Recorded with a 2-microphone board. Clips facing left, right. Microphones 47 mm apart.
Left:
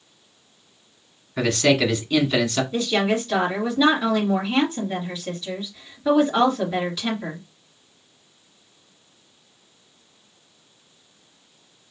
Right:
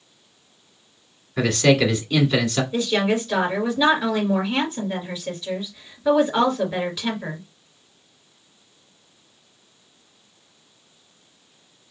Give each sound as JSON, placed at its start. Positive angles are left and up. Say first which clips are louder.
{"t": 1.4, "sound": "a man speaking", "louder": "right 1 dB", "side_deg": 0, "distance_m": 1.2}
{"t": 2.7, "sound": "a woman speaking", "louder": "right 1 dB", "side_deg": -5, "distance_m": 2.5}